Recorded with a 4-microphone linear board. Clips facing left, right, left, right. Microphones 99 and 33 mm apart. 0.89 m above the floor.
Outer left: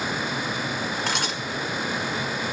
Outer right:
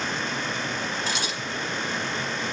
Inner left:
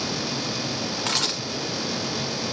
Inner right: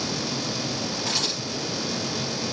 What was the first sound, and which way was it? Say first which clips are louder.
A camera shutter: outer left 2 dB, inner left 3 dB; 55° left (ahead or behind).